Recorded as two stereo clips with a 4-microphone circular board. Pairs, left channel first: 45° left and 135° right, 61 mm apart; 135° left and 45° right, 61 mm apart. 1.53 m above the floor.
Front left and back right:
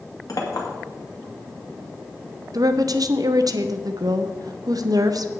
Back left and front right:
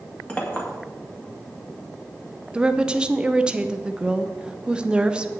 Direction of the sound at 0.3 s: 70° left.